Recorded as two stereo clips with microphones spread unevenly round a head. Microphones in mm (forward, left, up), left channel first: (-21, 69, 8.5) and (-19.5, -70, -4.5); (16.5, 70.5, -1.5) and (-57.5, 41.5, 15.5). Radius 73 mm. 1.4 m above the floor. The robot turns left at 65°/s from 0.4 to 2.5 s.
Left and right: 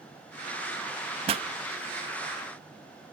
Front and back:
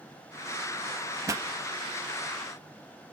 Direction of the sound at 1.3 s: 125° right.